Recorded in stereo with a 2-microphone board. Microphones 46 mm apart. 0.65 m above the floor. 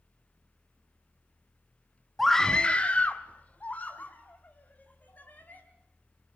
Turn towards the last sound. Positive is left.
turn(degrees=40)  # may be behind; listen again after turning